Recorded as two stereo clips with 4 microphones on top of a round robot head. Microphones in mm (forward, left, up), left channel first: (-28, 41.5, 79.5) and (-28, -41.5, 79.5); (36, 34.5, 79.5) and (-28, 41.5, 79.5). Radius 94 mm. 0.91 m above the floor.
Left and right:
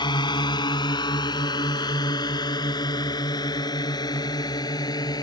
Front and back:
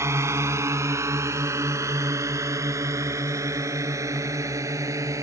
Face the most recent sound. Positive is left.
turn(degrees=135)